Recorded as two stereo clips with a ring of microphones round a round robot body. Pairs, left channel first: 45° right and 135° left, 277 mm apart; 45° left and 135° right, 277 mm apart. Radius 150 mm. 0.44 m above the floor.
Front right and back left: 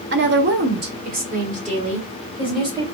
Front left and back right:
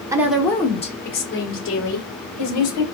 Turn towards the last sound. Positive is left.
turn(degrees=60)